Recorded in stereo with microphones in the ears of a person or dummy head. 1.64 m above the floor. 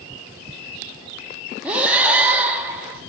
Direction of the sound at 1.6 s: 10° right (ahead or behind).